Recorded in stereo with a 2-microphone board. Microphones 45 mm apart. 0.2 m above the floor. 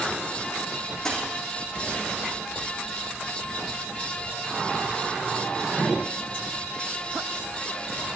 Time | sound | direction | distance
1.1 | a dropped coin | 15° left (ahead or behind) | 5 m